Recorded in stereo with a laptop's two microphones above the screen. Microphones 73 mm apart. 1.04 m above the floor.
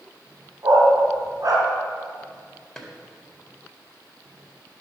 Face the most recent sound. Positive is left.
turn(degrees=10)  # may be behind; listen again after turning